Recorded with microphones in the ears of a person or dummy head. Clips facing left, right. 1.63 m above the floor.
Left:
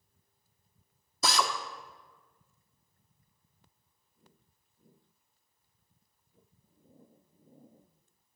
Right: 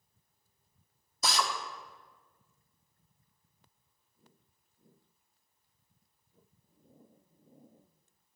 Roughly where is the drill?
Left.